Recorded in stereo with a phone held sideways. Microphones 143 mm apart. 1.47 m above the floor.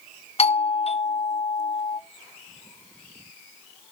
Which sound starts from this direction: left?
A doorbell, at 0.4 s.